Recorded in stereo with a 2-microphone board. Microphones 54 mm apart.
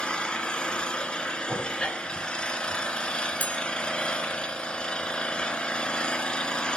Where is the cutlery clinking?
35° left (ahead or behind), 1.3 m.